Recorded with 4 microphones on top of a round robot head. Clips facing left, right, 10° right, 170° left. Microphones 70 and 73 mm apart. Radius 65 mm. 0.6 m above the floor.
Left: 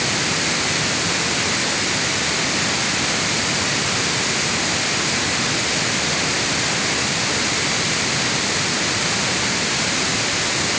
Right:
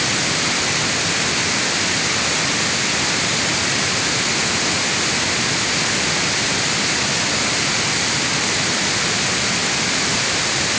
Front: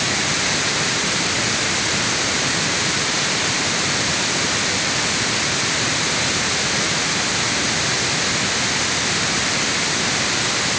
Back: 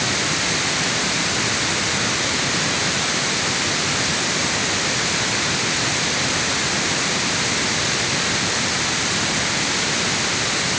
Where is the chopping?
No chopping in this recording.